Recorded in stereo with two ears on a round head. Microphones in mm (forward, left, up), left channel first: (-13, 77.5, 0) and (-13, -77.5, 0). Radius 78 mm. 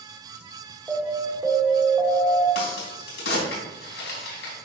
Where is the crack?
75° left (ahead or behind), 3.5 m.